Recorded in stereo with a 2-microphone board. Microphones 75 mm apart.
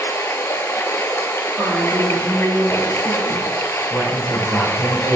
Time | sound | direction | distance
0.0 | running water | 35° left (ahead or behind) | 0.8 m
1.6 | a woman speaking | 5° right (ahead or behind) | 3 m
3.9 | a man speaking | 30° right (ahead or behind) | 3.5 m